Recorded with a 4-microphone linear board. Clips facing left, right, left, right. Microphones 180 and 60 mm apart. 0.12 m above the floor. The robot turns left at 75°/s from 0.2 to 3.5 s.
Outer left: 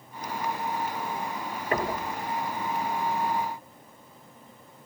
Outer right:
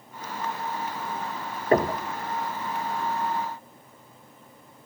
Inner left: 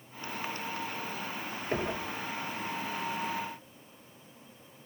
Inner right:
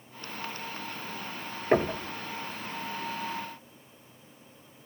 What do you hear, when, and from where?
1.7 s knocking: 35° right (ahead or behind), 2.5 m; by 2.0 s 50° right (ahead or behind), 2.5 m